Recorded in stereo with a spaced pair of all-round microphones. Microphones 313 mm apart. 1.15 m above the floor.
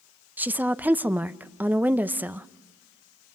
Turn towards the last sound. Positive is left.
turn(degrees=-5)  # may be behind; listen again after turning